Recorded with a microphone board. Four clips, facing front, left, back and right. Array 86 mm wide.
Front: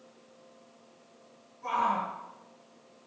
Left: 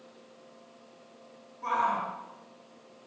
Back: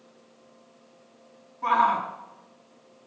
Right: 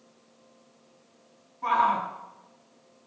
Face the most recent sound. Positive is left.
turn(degrees=-160)